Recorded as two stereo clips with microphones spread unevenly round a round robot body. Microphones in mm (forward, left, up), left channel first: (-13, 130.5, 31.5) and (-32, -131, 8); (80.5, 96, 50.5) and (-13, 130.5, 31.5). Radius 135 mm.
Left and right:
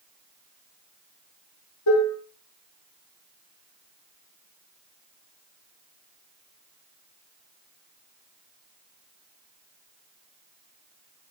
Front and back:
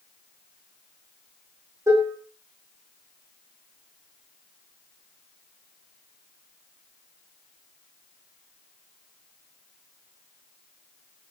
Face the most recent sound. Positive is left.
turn(degrees=100)